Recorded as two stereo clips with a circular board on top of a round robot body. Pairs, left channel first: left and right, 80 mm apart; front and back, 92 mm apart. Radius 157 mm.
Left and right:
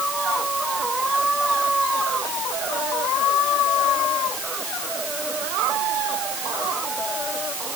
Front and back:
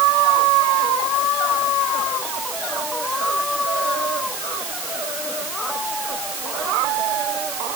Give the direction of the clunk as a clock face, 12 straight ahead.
I don't hear a clunk.